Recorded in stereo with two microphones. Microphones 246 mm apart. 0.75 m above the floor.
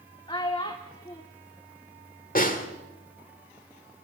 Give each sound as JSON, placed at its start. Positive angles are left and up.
{"t": 0.3, "sound": "a child speaking", "side_deg": 20, "distance_m": 1.4}
{"t": 2.4, "sound": "a snare drum", "side_deg": 35, "distance_m": 1.9}